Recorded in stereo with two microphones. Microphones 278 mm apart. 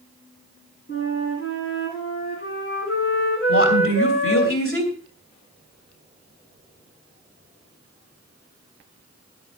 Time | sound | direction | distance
0.9 | a flute | 45° left (ahead or behind) | 8.5 m
3.5 | a woman speaking | 50° left (ahead or behind) | 3 m